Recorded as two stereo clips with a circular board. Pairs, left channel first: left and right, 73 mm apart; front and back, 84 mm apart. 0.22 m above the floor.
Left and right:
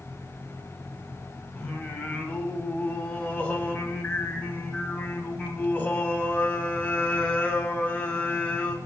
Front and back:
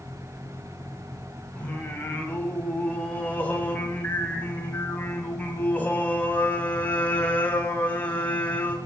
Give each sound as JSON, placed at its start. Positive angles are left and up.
{"t": 1.6, "sound": "singing", "azimuth_deg": 50, "distance_m": 1.7}